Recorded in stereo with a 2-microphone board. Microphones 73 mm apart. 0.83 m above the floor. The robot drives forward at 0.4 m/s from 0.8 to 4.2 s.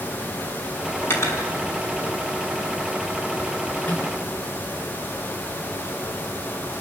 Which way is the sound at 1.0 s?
35° left (ahead or behind).